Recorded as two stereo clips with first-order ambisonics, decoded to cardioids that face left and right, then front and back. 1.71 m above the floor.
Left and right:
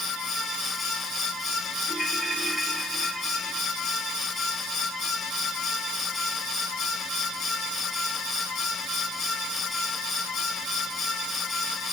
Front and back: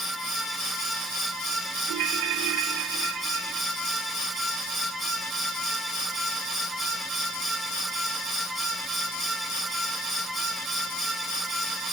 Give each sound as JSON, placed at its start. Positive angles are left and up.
{"t": 1.9, "sound": "a ringtone", "azimuth_deg": -170}